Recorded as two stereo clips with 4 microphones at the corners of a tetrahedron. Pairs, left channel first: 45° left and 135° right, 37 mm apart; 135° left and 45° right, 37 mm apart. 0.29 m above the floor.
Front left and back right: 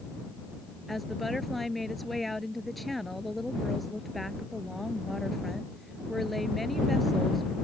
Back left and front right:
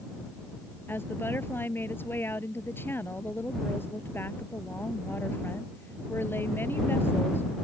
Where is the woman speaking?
130° left.